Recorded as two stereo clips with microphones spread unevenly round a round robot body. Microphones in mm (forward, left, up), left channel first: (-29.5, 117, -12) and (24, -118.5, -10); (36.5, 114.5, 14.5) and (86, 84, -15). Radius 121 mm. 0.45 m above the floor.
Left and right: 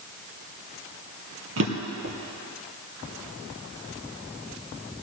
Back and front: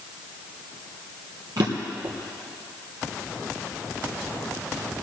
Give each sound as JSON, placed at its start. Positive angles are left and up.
{"t": 1.6, "sound": "a drawer", "azimuth_deg": -40, "distance_m": 3.0}